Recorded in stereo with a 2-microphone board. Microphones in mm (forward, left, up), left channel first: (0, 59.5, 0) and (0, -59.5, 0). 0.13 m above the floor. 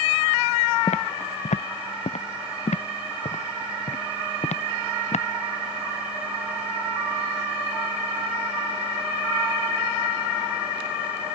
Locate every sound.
0.9 s footsteps: 85° left; by 5.2 s 80° left